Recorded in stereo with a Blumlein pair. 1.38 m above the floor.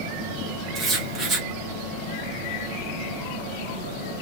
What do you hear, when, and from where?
0.8 s writing: 20° right, 1.5 m